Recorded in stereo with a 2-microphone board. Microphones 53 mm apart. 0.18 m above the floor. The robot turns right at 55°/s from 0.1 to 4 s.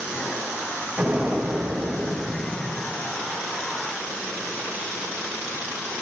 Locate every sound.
1.0 s an explosion: 150° right, 3.5 m; by 2.9 s 50° right, 3.5 m